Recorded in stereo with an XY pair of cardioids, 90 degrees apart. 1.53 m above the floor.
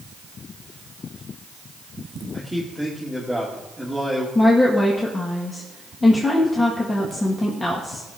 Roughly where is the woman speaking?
Ahead left.